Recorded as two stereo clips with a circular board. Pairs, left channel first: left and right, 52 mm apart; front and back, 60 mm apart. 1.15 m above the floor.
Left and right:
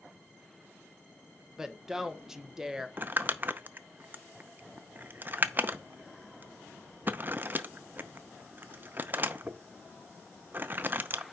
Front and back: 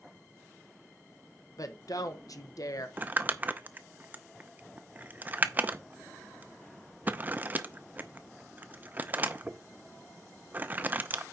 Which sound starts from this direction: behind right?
Crumpling, at 3.0 s.